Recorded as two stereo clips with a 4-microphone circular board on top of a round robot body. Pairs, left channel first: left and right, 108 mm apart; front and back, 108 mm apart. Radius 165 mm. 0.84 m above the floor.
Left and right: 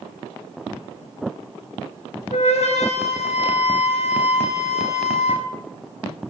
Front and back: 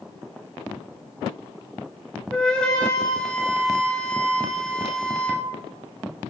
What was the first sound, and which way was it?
A flute, 80° left.